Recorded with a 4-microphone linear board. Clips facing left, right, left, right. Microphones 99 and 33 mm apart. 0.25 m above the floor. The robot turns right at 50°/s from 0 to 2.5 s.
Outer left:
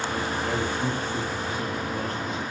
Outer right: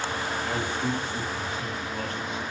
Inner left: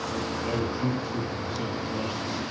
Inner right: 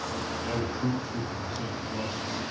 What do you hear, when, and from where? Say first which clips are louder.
0.4 s a man speaking: outer left 1 dB, inner left 1 dB; 45° left, 2 m; by 2.4 s 140° left, 2 m